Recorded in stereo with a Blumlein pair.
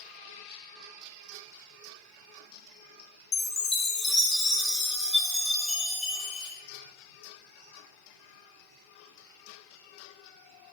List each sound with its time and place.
3.3 s a chime: 15° left, 0.9 m